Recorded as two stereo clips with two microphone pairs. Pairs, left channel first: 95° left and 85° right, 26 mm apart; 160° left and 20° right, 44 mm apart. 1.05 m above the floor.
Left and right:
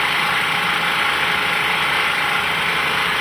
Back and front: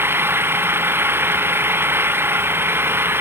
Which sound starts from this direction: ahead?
An engine running, at 0.0 s.